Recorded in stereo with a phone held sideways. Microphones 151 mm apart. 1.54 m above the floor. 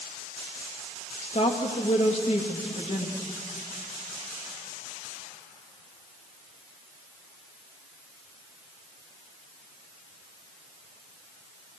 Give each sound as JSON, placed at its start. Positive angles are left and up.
{"t": 1.2, "sound": "a woman speaking", "side_deg": 45, "distance_m": 3.0}